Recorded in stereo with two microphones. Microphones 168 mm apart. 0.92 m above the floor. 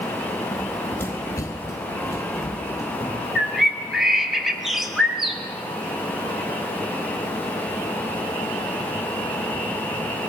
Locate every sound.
0.5 s running footsteps: centre (ahead or behind), 1.0 m; by 3.2 s 15° left (ahead or behind), 3.5 m
3.4 s a bird: centre (ahead or behind), 1.0 m